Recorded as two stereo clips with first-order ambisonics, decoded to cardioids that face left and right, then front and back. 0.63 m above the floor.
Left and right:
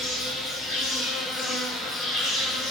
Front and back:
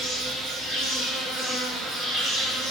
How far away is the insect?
About 2 m.